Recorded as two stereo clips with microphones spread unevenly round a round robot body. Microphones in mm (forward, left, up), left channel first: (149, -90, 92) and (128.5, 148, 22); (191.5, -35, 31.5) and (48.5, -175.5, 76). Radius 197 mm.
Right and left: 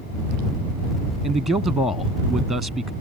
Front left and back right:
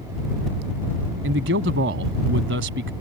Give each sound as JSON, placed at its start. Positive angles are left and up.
{"t": 1.2, "sound": "a man speaking", "azimuth_deg": 180}